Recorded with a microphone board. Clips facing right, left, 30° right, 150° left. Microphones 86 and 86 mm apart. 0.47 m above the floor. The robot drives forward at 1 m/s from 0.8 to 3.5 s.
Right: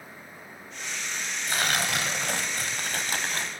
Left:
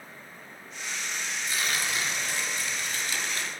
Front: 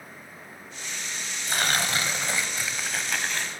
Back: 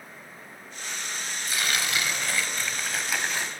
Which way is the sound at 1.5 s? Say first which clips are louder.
Right 5 dB, front 3 dB; 65° right.